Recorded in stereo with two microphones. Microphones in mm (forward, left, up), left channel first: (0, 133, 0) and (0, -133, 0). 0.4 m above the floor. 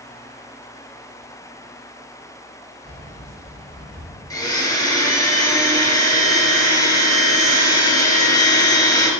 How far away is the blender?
About 1.2 m.